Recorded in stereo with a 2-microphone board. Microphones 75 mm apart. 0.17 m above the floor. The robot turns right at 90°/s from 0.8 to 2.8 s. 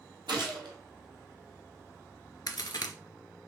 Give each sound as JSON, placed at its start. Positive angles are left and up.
{"t": 0.3, "sound": "a gunshot", "side_deg": -75, "distance_m": 1.3}
{"t": 2.5, "sound": "a crack", "side_deg": 60, "distance_m": 0.7}